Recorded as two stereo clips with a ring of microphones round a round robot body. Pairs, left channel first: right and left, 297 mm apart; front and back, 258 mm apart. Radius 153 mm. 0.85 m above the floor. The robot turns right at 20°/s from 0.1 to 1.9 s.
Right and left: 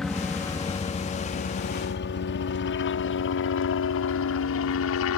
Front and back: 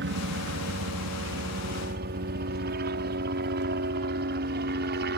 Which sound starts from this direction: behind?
A helicopter, at 0.0 s.